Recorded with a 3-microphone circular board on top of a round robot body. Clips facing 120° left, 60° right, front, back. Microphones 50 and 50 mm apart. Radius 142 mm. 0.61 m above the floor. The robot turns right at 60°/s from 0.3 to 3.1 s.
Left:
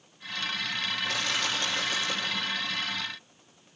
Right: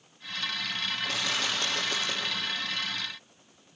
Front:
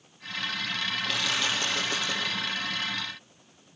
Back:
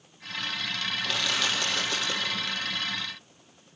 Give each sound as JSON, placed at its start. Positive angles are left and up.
{"t": 1.0, "sound": "crushing", "azimuth_deg": -95, "distance_m": 5.0}